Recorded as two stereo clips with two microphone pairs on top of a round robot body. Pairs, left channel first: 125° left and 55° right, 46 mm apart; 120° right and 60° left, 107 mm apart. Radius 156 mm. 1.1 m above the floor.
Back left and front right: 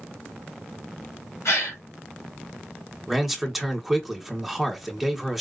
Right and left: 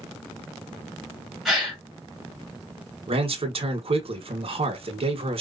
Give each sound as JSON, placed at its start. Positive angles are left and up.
{"t": 1.4, "sound": "a gasp", "azimuth_deg": 150, "distance_m": 2.0}
{"t": 3.1, "sound": "a man speaking", "azimuth_deg": 35, "distance_m": 1.2}